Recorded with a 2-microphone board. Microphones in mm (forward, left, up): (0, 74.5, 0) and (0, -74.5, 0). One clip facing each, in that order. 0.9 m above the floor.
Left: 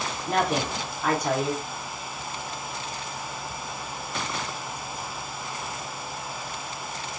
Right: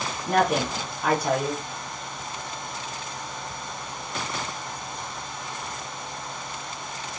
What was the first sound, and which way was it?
A woman speaking, 10° right (ahead or behind).